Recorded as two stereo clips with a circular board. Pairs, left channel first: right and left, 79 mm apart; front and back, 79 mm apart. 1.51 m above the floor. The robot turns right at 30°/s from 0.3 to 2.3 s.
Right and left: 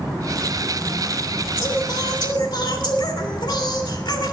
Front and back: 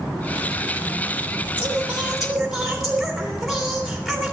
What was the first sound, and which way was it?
Singing, 115° right.